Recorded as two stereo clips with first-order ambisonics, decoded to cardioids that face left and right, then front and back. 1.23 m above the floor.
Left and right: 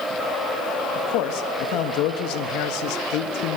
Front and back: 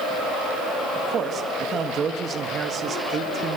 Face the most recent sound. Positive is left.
turn(degrees=120)